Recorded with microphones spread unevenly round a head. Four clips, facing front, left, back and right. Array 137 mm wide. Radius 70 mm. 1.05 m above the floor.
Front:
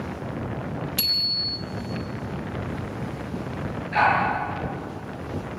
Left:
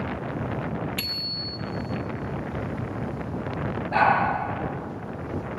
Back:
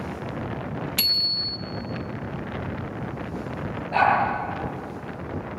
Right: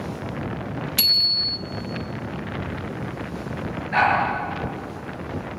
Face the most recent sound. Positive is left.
turn(degrees=120)